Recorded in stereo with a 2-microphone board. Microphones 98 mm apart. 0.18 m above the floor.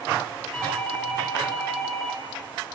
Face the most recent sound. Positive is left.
turn(degrees=15)  # may be behind; listen again after turning